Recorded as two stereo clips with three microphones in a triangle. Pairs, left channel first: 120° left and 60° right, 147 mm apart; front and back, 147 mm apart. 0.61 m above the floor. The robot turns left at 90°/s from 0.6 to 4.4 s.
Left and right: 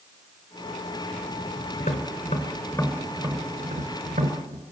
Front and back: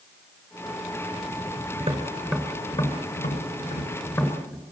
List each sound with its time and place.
1.8 s tapping: 155° left, 2.5 m; by 4.6 s 85° right, 2.5 m